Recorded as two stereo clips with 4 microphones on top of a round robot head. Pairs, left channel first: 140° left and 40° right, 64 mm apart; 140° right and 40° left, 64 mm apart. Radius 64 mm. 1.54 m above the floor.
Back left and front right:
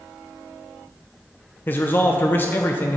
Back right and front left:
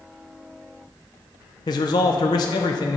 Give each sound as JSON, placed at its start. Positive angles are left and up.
{"t": 1.7, "sound": "a man speaking", "azimuth_deg": -160, "distance_m": 0.7}